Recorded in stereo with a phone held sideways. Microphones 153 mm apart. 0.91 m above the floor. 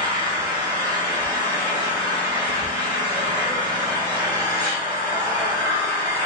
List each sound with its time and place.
0.0 s an engine running: 30° right (ahead or behind), 1.3 m